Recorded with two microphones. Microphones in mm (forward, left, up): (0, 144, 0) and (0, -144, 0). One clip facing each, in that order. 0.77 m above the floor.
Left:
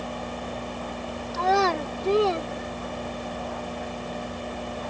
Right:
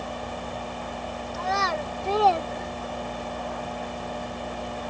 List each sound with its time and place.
1.3 s a child speaking: 80° left; by 3.4 s 20° right (ahead or behind)